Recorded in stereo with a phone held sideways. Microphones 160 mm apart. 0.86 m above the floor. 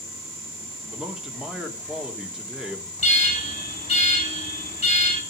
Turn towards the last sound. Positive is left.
turn(degrees=40)  # may be behind; listen again after turning